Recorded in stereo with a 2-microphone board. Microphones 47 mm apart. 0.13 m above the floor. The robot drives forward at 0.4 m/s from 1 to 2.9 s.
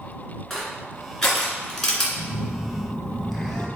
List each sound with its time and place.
0.5 s crushing: 5° left (ahead or behind), 1.9 m; by 2.1 s 10° left (ahead or behind), 1.7 m
2.2 s a phone buzzing: 5° left (ahead or behind), 0.6 m; by 3.7 s centre (ahead or behind), 0.9 m